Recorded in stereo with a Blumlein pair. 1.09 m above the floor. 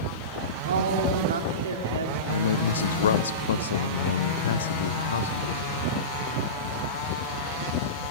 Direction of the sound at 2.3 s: 65° left.